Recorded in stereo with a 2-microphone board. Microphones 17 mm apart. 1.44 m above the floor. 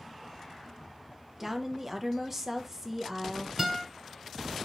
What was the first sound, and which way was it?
A woman speaking, 20° right (ahead or behind).